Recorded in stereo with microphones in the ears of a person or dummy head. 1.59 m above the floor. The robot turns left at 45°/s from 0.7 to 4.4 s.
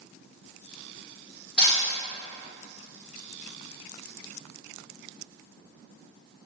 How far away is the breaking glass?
About 1.4 m.